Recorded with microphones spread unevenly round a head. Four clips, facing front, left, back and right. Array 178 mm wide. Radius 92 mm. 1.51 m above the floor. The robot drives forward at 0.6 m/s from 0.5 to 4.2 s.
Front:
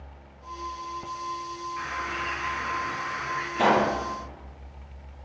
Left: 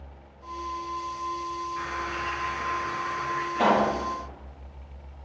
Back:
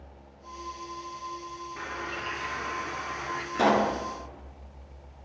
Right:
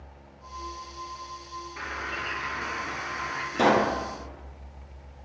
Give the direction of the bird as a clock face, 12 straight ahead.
5 o'clock.